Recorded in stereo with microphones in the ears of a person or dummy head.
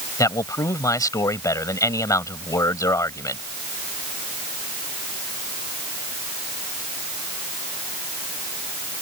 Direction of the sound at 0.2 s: 10° left (ahead or behind).